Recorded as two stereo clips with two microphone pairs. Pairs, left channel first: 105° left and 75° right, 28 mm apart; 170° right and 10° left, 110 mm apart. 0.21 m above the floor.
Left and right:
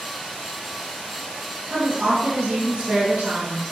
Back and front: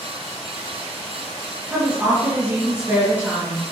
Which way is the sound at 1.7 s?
60° right.